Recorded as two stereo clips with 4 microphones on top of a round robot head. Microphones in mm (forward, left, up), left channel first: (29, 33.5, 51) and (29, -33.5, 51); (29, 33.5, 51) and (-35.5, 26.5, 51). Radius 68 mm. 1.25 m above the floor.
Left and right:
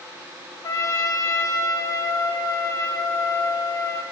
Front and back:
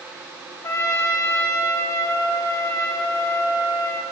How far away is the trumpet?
About 1.4 m.